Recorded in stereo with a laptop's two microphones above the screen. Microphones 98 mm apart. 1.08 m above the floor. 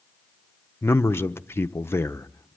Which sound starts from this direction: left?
A man speaking, at 0.8 s.